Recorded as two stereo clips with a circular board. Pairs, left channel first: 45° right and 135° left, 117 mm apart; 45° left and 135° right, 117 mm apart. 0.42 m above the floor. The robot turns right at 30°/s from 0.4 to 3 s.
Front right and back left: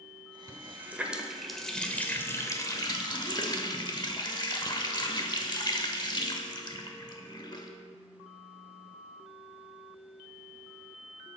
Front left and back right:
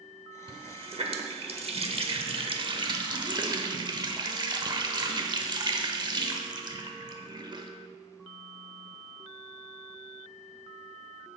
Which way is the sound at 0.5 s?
165° right.